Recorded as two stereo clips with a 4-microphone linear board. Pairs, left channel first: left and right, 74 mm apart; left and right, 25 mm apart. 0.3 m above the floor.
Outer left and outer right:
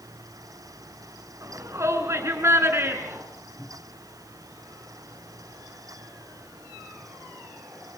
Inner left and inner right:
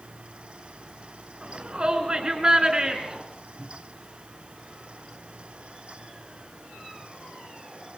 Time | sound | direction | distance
1.4 | a shout | 45° right (ahead or behind) | 4.5 m
3.6 | a cupboard door | 5° right (ahead or behind) | 5.5 m